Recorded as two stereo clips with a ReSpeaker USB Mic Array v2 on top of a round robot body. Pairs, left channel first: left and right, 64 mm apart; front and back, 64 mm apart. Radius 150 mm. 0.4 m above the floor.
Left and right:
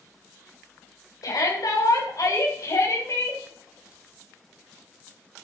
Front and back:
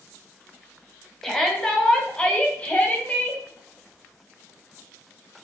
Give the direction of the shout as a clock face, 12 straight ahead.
9 o'clock.